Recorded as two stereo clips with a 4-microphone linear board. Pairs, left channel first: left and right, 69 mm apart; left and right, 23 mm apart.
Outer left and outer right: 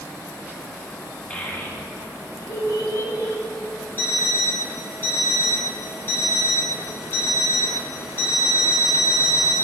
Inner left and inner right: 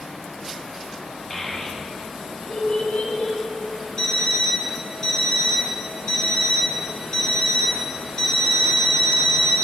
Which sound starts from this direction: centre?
A child speaking, at 1.3 s.